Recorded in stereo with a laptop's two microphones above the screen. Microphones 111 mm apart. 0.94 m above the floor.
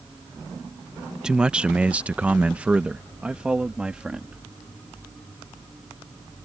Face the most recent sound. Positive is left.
turn(degrees=-10)  # may be behind; listen again after turning